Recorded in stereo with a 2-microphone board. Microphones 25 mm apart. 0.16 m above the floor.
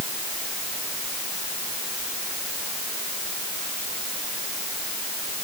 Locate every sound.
Only background noise.